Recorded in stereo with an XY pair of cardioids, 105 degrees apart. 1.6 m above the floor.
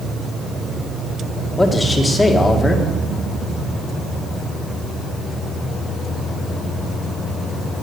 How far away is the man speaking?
About 1.8 m.